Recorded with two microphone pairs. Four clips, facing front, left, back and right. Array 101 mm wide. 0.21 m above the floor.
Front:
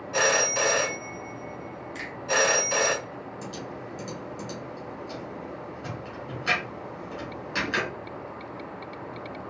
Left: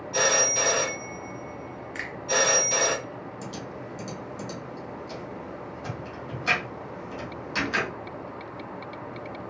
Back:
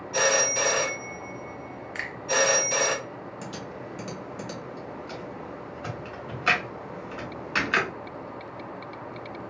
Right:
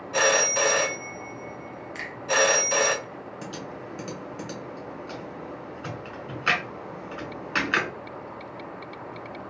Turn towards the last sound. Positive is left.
turn(degrees=-135)